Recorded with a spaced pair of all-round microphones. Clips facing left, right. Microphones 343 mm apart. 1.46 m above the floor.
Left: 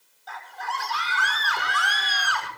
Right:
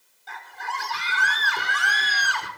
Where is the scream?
30° right (ahead or behind), 5 m.